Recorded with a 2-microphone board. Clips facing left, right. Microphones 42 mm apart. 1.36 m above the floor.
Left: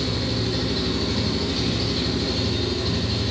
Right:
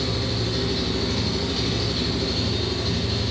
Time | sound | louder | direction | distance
0.0 | an engine running | left 1 dB | centre (ahead or behind) | 1.0 m